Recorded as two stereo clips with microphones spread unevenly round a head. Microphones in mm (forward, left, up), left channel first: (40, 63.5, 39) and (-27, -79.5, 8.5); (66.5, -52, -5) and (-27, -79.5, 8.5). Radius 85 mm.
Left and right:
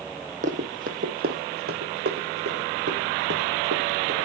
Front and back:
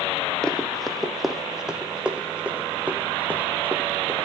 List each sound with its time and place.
0.4 s running footsteps: 70° right, 1.7 m; by 4.3 s 95° right, 3.5 m